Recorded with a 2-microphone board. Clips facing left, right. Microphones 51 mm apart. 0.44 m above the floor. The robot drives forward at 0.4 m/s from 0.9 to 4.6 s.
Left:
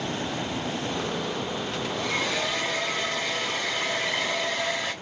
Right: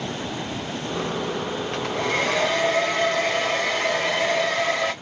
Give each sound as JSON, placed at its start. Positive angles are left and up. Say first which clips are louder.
{"t": 1.7, "sound": "a hair dryer", "louder": "right 5 dB", "side_deg": -50, "distance_m": 1.8}